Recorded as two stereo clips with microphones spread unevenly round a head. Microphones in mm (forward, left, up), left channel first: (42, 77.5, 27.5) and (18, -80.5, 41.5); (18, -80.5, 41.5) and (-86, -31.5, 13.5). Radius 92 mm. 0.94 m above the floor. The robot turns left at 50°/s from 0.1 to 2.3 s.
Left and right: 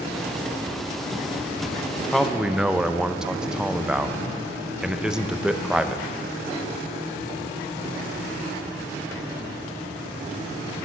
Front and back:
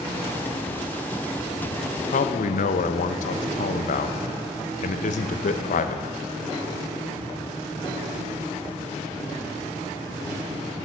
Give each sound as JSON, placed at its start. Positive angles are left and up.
{"t": 2.1, "sound": "a man speaking", "azimuth_deg": 0, "distance_m": 0.6}